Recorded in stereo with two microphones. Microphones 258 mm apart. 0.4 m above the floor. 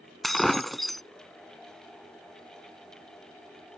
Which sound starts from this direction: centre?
Breaking glass, at 0.2 s.